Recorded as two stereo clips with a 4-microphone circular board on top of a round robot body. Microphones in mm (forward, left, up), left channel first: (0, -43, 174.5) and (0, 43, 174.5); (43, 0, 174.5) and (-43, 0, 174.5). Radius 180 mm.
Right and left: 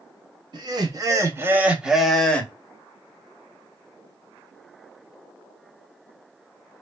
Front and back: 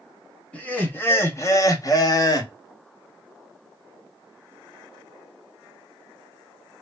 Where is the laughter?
70° left, 1.2 m; by 2.5 s 20° right, 1.1 m.